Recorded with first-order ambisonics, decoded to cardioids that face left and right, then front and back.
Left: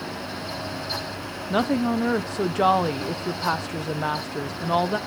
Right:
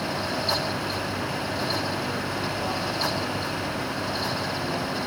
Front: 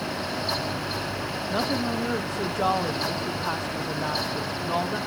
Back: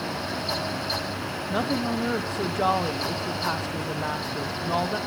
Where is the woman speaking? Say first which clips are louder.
Left 8 dB, even; 95° left, 1.1 m.